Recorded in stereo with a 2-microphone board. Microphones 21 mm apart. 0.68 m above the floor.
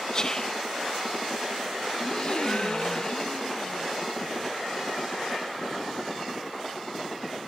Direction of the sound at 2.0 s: 40° left (ahead or behind).